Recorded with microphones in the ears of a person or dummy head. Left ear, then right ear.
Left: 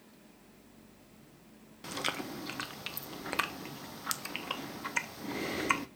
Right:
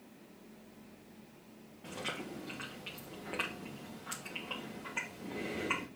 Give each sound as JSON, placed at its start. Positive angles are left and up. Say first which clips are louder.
{"t": 1.8, "sound": "chewing", "louder": "left 5 dB", "side_deg": 65, "distance_m": 0.6}